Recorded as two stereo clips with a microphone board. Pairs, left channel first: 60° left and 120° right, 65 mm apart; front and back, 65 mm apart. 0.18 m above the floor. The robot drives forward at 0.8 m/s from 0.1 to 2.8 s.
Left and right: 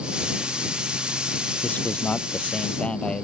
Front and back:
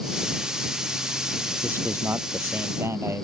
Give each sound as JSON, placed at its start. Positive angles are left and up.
{"t": 1.6, "sound": "a man speaking", "azimuth_deg": 125}